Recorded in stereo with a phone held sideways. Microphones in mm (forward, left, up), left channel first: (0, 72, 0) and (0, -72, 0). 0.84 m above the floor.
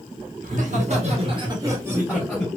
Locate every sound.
0.4 s laughter: 65° right (ahead or behind), 1.3 m; by 2.5 s centre (ahead or behind), 1.3 m